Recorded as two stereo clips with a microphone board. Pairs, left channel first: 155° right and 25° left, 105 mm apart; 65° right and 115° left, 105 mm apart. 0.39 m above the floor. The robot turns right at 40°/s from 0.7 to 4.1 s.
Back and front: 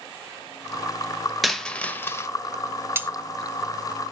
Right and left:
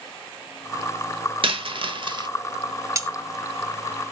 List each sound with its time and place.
1.4 s a dropped coin: 115° left, 0.7 m; by 2.3 s 145° left, 0.7 m
3.0 s cutlery clinking: 75° left, 0.8 m; by 3.1 s 80° left, 0.8 m